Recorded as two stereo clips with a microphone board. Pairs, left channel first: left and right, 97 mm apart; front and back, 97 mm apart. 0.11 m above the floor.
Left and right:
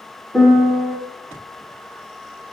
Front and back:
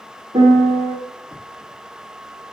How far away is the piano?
About 5.5 m.